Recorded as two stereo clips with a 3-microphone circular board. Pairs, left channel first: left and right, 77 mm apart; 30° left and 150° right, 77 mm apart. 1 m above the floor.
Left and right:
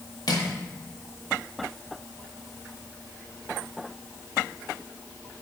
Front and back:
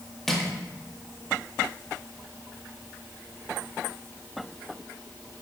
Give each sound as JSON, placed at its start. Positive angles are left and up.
{"t": 0.3, "sound": "crushing", "azimuth_deg": 115, "distance_m": 1.8}